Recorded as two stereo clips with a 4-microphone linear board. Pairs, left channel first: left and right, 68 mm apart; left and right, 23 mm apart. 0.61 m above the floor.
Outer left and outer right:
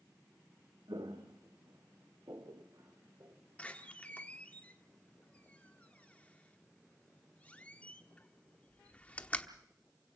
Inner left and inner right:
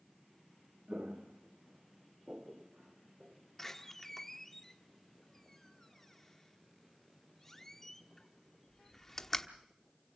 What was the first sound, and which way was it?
Footsteps, 80° right.